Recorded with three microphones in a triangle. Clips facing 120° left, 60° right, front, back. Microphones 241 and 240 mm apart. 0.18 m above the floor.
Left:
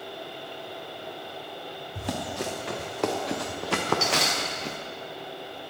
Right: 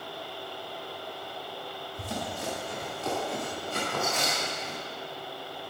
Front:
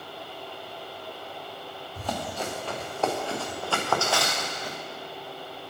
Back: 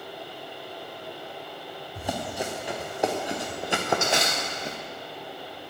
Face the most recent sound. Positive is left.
turn(degrees=115)